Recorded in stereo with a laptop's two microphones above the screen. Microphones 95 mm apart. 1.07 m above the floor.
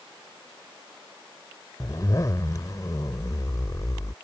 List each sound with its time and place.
1.8 s a zipper: 40° left (ahead or behind)